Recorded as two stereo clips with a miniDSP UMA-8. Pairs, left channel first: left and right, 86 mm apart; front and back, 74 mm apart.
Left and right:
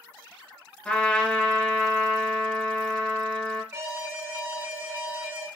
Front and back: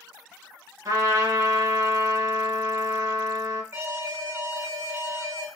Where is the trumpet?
160° left, 1.1 m.